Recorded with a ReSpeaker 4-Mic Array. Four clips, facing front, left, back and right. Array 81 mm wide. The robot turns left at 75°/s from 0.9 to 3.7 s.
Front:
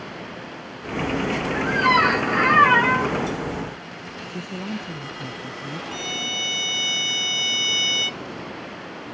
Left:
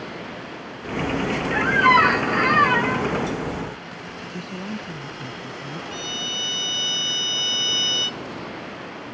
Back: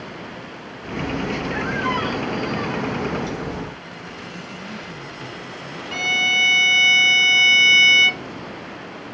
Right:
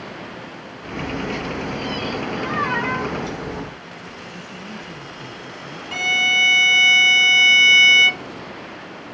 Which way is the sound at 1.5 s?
100° left.